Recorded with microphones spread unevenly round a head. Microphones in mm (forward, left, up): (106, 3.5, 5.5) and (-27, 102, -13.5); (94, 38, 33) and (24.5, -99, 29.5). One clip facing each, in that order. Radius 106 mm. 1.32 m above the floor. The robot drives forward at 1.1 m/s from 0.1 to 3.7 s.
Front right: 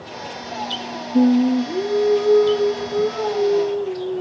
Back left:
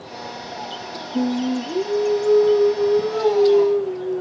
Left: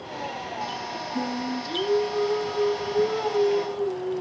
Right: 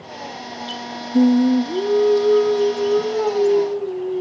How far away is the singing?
About 1.1 m.